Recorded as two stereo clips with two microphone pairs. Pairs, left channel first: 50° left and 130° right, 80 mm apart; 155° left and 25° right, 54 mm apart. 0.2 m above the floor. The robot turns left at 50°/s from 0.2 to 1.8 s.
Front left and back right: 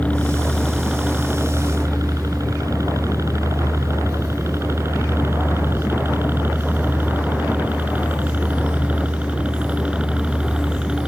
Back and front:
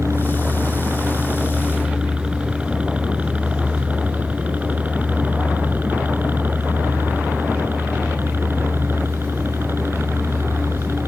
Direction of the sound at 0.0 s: 20° right.